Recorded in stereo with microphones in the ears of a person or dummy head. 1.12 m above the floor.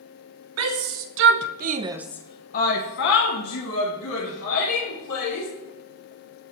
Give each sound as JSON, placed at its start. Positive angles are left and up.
{"t": 0.6, "sound": "a shout", "side_deg": -75, "distance_m": 1.9}